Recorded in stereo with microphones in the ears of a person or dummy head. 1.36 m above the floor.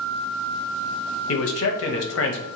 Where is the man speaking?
60° left (ahead or behind), 0.5 m.